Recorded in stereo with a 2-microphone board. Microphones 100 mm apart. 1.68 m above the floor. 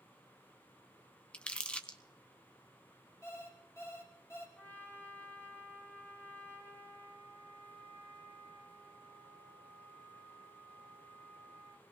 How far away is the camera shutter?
I don't hear a camera shutter.